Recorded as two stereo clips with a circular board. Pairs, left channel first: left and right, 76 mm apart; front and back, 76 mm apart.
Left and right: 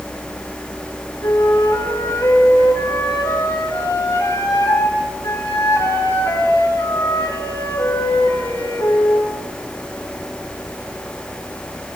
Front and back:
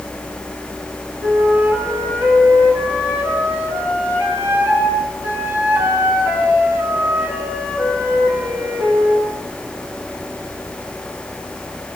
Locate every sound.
1.2 s a flute: 120° left, 6.5 m